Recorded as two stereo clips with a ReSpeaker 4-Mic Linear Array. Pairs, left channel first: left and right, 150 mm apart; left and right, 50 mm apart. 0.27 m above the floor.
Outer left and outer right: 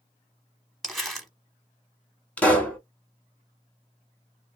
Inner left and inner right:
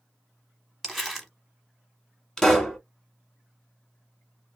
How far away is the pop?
About 0.9 m.